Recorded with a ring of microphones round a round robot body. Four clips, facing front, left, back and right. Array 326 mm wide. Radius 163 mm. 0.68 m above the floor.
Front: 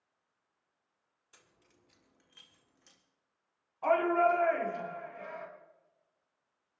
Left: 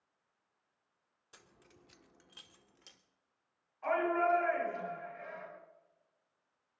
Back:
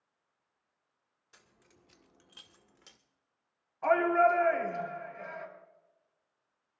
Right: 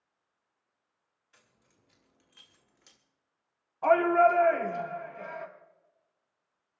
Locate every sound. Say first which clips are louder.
1.3 s keys jangling: left 6 dB, back 3 dB; 95° left, 1.6 m; by 3.0 s 175° left, 1.8 m
3.8 s a shout: right 9 dB, back 2 dB; 95° right, 5 m